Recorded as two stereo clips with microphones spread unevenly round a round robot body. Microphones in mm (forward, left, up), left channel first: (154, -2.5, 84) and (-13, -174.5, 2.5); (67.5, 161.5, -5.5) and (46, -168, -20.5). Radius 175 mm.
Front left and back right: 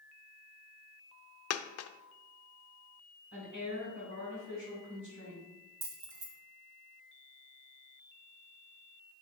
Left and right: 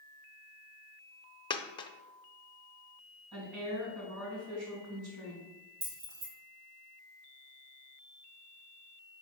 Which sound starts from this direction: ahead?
A dropped coin, at 1.5 s.